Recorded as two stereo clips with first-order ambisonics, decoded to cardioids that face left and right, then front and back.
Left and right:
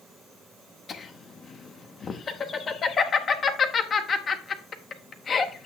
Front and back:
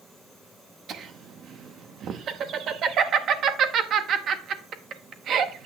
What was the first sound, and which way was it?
Laughter, 145° left.